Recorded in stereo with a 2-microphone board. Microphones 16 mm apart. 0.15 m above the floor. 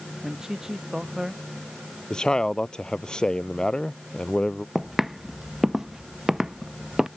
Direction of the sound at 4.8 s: 15° right (ahead or behind).